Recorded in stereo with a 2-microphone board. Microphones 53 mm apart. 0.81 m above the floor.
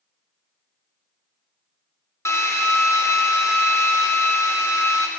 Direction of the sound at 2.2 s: 65° left (ahead or behind).